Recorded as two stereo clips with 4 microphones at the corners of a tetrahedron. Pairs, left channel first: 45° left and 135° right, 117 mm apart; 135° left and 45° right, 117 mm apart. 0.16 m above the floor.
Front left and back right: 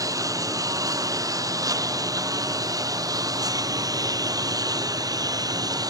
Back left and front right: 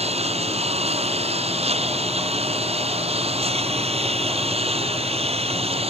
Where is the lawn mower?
75° right.